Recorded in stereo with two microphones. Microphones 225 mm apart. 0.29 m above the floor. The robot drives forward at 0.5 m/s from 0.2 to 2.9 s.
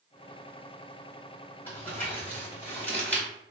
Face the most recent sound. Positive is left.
turn(degrees=5)  # may be behind; listen again after turning